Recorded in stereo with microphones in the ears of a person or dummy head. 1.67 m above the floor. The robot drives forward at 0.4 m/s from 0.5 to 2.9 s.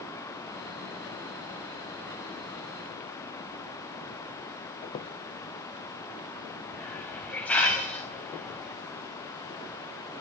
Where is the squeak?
20° left (ahead or behind), 0.8 m.